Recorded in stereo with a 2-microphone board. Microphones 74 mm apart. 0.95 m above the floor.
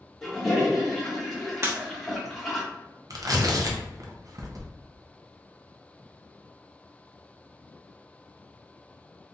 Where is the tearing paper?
55° right (ahead or behind), 0.6 m.